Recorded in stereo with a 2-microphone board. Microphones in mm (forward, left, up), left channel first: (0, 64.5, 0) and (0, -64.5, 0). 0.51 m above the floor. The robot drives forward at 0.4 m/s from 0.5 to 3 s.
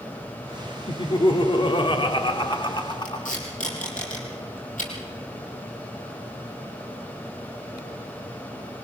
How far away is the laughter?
About 1.4 m.